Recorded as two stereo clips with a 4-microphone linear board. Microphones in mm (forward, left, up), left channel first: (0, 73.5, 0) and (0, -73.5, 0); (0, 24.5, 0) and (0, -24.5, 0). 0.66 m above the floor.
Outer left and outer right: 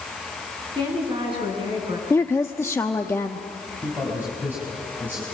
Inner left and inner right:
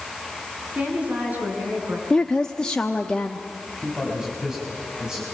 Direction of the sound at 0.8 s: 35° right (ahead or behind).